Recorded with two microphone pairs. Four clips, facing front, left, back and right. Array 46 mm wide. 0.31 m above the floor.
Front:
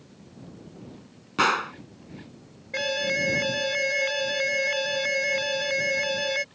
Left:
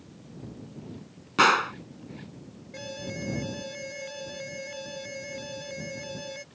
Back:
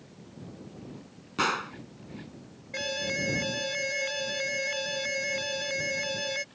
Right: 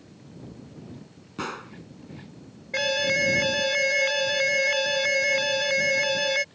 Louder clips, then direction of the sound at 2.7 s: Right 14 dB, front 6 dB; 65° right.